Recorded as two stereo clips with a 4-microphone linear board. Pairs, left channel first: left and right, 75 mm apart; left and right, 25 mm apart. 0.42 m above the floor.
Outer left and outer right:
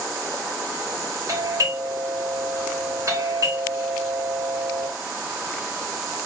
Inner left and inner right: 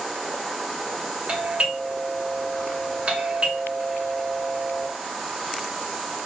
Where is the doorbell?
45° right (ahead or behind), 2.5 m.